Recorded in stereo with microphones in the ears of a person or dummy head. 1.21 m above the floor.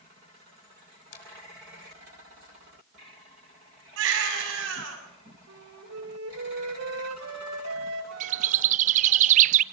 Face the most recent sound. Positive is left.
turn(degrees=-40)  # may be behind; listen again after turning